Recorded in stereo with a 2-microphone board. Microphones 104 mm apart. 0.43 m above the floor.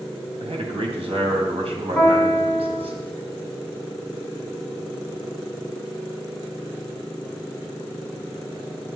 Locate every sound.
0.4 s a man speaking: 70° right (ahead or behind), 3 m
1.9 s a piano: 15° left (ahead or behind), 3 m